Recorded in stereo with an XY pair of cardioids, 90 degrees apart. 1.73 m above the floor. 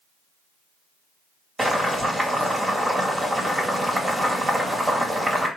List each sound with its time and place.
1.6 s boiling: 10° right, 2 m